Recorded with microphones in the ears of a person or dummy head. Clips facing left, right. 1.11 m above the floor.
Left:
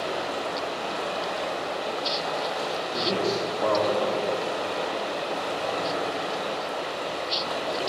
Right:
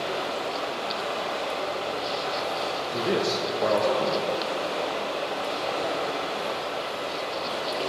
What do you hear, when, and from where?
0.0 s running water: 15° left (ahead or behind), 1.2 m
2.9 s a man speaking: 10° right (ahead or behind), 0.6 m